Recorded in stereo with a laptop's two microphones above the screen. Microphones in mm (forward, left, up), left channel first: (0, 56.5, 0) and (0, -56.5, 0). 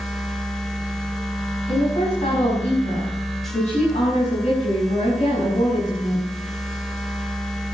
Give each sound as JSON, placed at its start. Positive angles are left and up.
{"t": 0.0, "sound": "a machine running", "side_deg": 5, "distance_m": 1.7}
{"t": 1.7, "sound": "a woman speaking", "side_deg": 80, "distance_m": 6.5}